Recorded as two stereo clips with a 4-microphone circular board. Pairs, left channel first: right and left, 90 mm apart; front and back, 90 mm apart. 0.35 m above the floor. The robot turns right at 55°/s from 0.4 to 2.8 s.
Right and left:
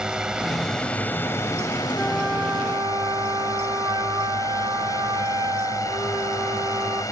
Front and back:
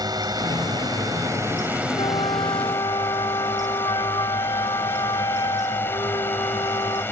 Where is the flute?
5° right; by 7.0 s 40° left.